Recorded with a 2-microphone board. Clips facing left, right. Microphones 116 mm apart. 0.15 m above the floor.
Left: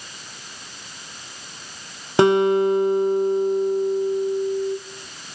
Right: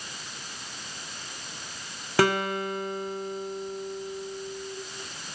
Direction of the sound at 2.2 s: 25° left (ahead or behind).